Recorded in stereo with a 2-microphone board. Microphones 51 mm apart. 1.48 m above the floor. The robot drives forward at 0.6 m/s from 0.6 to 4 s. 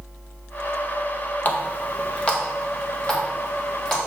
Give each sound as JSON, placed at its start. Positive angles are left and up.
{"t": 1.4, "sound": "a running tap", "side_deg": 35, "distance_m": 0.9}